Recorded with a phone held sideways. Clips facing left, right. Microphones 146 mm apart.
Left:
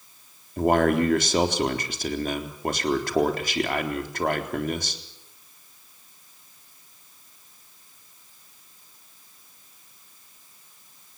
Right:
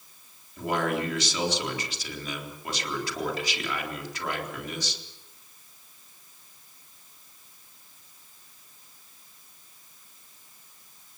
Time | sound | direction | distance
0.6 | a man speaking | 55° left (ahead or behind) | 3.5 m